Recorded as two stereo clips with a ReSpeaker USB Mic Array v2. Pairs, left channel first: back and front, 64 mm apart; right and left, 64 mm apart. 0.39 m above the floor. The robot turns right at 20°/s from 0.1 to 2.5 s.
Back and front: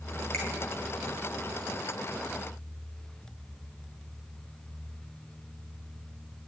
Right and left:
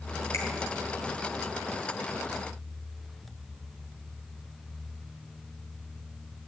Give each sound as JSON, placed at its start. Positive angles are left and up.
{"t": 0.3, "sound": "a finger snap", "azimuth_deg": -130, "distance_m": 4.0}